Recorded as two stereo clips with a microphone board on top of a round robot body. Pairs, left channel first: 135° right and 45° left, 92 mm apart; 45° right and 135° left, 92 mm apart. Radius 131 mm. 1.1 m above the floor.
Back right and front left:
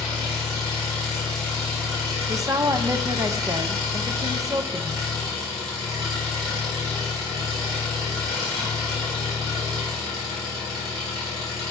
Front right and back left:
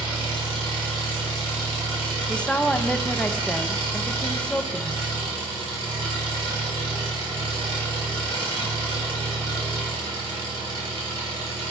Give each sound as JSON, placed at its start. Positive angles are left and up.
{"t": 0.0, "sound": "an engine running", "azimuth_deg": 95, "distance_m": 3.5}
{"t": 2.3, "sound": "a woman speaking", "azimuth_deg": 30, "distance_m": 0.8}